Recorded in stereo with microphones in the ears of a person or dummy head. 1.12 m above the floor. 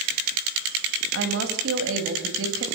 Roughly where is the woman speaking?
Right.